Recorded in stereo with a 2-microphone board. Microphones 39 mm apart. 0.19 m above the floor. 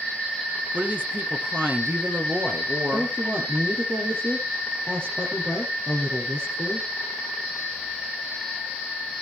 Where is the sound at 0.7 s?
50° right (ahead or behind), 2 m; by 3.1 s 65° right (ahead or behind), 3.5 m.